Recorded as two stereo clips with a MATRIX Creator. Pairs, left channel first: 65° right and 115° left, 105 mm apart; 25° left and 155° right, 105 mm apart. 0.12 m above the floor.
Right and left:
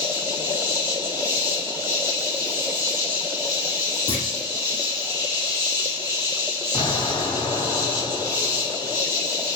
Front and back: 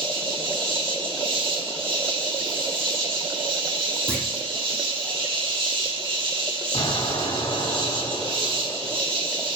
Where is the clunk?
90° right, 2.5 m.